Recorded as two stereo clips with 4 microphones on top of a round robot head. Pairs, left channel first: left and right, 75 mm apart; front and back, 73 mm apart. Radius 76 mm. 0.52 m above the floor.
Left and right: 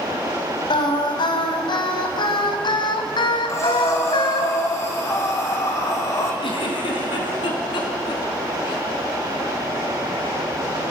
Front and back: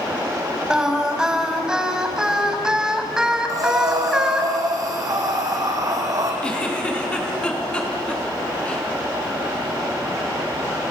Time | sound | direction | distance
0.7 | singing | 100° left | 3.5 m
3.5 | breathing | 140° left | 5 m
6.4 | a giggle | 75° left | 4.5 m